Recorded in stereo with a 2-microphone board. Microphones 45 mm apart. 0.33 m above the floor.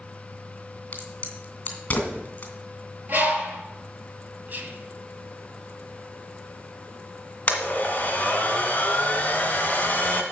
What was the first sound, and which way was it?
A crack, 30° left (ahead or behind).